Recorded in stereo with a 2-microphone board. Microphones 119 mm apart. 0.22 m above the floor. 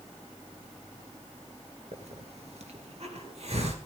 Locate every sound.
1.9 s a hiss: 65° right (ahead or behind), 2.5 m